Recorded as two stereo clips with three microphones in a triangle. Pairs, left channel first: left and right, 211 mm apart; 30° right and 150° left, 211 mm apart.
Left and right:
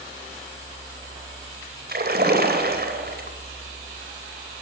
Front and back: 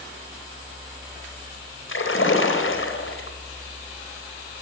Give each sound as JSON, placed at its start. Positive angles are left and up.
{"t": 1.9, "sound": "a splash", "azimuth_deg": -50, "distance_m": 3.5}